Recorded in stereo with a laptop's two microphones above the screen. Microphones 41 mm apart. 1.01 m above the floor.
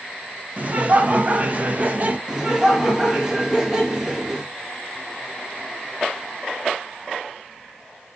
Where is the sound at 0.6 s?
40° right (ahead or behind), 0.5 m.